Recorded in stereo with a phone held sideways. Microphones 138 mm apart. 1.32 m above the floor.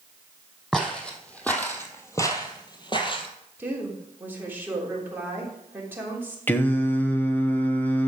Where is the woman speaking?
15° right (ahead or behind), 3 m.